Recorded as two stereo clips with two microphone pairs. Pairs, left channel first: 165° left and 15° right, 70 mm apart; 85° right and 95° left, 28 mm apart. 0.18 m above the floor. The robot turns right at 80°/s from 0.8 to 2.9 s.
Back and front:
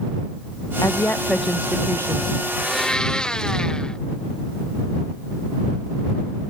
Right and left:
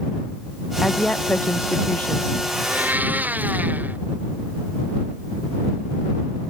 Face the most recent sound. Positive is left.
turn(degrees=85)